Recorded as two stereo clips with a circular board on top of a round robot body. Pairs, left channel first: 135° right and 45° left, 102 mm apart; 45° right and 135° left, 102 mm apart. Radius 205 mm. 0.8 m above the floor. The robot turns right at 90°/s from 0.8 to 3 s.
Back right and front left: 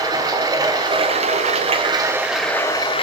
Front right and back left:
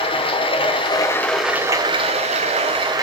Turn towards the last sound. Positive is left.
turn(degrees=-170)